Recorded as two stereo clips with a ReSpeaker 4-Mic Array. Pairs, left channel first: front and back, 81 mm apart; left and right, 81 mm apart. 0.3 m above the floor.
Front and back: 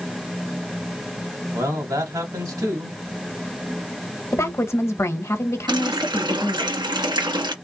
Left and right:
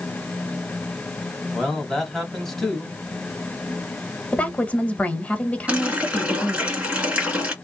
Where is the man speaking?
175° left, 2 m.